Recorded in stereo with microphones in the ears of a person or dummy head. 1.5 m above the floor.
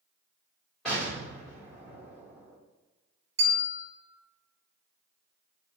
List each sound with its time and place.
0.8 s an explosion: centre (ahead or behind), 1.8 m
3.4 s a bell: 30° right (ahead or behind), 1.2 m